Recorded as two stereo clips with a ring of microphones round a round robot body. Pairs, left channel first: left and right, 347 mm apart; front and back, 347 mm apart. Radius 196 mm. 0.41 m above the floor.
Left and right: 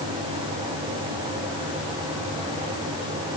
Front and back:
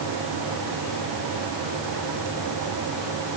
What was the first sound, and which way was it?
Only background noise.